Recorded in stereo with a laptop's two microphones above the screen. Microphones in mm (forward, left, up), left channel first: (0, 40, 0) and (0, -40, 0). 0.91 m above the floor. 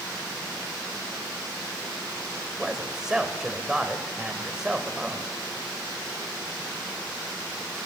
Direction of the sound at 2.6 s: 5° right (ahead or behind).